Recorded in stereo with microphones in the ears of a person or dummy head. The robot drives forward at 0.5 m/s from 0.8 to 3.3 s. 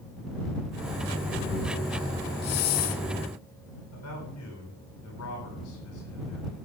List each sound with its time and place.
2.4 s a hiss: 50° left (ahead or behind), 1.0 m; by 3.0 s 40° left (ahead or behind), 1.2 m
3.9 s a man speaking: 85° left, 9.5 m